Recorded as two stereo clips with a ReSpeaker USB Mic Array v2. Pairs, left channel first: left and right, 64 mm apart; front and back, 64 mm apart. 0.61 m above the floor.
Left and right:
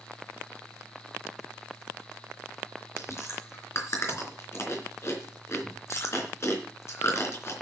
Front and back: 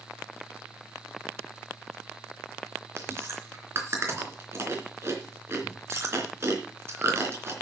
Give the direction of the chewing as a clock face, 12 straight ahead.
8 o'clock.